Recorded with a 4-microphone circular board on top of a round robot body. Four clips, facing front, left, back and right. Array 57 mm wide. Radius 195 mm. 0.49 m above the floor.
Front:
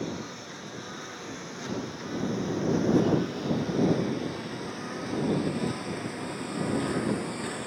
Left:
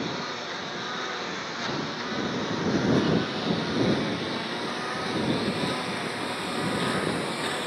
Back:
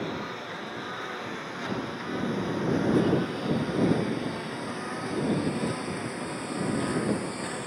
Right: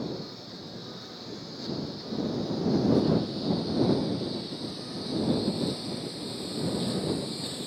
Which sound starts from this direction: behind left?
A lawn mower, at 0.0 s.